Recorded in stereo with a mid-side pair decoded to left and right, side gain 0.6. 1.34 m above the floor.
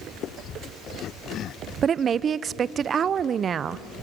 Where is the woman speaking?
35° right, 0.6 m.